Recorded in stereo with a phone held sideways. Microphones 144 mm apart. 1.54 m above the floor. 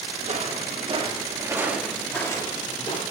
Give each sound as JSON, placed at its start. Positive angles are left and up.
{"t": 0.2, "sound": "footsteps", "side_deg": -60, "distance_m": 3.0}